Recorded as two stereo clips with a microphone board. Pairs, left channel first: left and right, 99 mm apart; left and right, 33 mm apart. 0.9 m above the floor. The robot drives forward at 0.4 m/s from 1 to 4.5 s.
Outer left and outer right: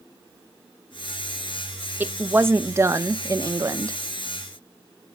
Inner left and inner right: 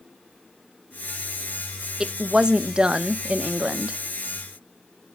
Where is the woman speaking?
20° right (ahead or behind), 0.8 m; by 4.0 s 35° right (ahead or behind), 0.5 m.